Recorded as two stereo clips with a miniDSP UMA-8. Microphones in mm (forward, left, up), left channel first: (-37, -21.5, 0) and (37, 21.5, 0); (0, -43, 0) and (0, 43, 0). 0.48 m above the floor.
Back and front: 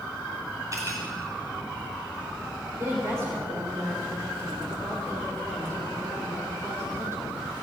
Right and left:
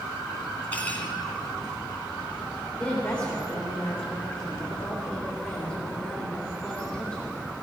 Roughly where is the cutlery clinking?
Ahead.